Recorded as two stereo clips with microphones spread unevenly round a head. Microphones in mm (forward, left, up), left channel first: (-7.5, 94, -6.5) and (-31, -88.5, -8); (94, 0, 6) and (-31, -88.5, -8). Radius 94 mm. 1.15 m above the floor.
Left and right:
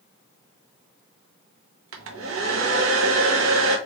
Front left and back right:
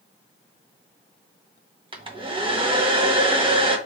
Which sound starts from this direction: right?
A hair dryer, at 1.9 s.